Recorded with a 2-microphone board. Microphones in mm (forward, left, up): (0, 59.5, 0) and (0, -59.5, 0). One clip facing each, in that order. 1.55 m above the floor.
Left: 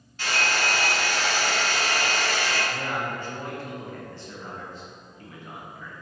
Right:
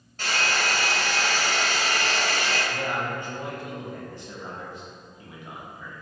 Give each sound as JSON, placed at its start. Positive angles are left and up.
{"t": 0.2, "sound": "a hair dryer", "side_deg": -45, "distance_m": 1.9}
{"t": 2.7, "sound": "a man speaking", "side_deg": -15, "distance_m": 1.0}